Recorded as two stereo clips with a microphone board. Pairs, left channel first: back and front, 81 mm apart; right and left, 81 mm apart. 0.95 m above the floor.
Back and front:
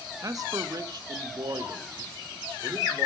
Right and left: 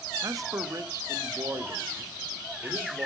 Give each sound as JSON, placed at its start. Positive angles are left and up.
{"t": 0.2, "sound": "a man speaking", "azimuth_deg": 45, "distance_m": 1.0}